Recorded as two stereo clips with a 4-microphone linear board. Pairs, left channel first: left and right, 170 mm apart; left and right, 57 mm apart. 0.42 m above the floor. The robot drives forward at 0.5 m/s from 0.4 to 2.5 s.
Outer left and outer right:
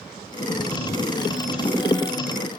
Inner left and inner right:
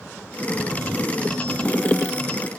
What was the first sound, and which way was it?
Only background noise.